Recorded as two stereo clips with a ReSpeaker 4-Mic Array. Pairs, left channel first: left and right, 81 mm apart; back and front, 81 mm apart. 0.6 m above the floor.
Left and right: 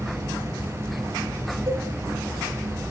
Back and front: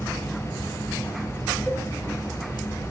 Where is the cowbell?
105° right, 9 m.